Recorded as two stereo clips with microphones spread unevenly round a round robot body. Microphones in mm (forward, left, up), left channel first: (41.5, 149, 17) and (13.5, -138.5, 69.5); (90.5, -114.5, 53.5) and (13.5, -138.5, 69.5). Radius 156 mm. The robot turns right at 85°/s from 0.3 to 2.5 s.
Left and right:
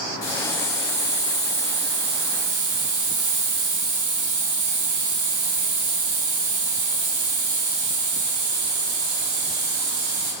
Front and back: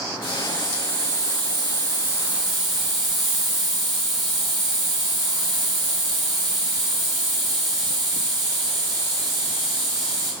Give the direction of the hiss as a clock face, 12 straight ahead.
9 o'clock.